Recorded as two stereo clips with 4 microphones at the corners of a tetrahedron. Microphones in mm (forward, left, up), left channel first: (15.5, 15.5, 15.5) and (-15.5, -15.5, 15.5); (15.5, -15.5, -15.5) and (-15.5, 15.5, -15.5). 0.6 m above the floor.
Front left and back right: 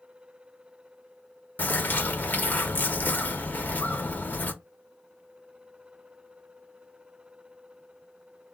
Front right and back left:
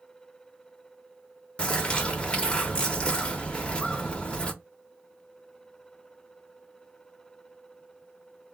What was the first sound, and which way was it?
A bird, 15° left.